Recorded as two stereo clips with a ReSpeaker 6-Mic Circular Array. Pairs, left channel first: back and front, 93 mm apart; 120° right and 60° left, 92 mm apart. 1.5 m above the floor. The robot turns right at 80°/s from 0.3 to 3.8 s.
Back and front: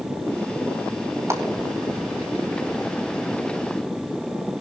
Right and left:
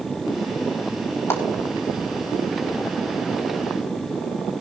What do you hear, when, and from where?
1.3 s a clap: 60° right, 4 m; by 1.4 s 50° right, 4 m